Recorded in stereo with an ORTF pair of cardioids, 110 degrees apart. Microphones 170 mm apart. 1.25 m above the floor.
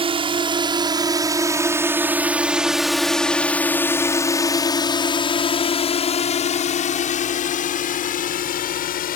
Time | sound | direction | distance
0.0 | a drone | 35° right | ?